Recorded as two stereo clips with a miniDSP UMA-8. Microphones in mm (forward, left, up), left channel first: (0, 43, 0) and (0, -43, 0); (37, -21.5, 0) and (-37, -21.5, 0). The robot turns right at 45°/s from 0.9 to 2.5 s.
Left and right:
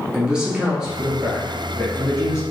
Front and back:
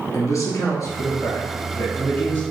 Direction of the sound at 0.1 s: 15° right.